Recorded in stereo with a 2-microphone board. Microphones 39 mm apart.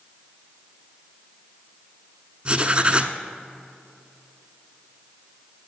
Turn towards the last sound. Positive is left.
turn(degrees=-30)  # may be behind; listen again after turning